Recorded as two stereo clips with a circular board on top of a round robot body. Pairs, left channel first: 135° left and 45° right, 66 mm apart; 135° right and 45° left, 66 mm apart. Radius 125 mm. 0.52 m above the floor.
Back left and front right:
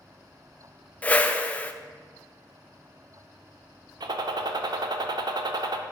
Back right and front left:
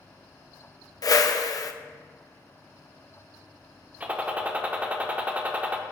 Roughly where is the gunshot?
Ahead right.